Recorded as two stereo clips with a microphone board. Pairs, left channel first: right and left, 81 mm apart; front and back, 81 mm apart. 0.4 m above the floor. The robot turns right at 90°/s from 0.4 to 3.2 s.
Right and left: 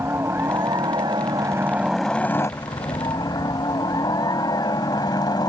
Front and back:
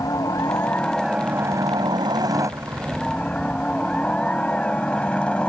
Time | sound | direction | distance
0.0 | a helicopter | 35° left | ?